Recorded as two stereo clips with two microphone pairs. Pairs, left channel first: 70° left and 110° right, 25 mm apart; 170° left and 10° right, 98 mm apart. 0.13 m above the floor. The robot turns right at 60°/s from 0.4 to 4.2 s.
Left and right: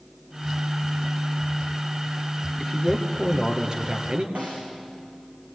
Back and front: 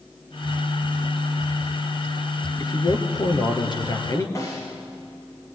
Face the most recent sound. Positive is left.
turn(degrees=-130)